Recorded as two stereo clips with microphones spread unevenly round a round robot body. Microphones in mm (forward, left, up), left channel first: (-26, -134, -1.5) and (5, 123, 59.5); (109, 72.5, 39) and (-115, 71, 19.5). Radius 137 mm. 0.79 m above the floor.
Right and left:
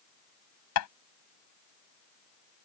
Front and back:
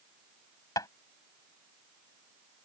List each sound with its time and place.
0.8 s tapping: 80° right